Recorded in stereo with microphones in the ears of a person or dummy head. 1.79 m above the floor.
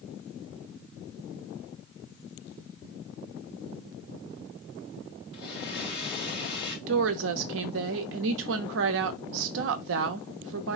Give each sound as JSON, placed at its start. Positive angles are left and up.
{"t": 5.3, "sound": "a blender", "side_deg": 30, "distance_m": 3.0}
{"t": 6.9, "sound": "a woman speaking", "side_deg": -70, "distance_m": 0.7}